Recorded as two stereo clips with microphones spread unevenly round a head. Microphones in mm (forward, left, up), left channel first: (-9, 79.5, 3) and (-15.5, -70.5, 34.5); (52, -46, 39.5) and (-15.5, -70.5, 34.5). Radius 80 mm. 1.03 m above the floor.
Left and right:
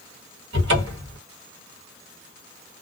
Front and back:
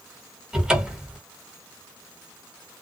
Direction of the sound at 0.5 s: 80° right.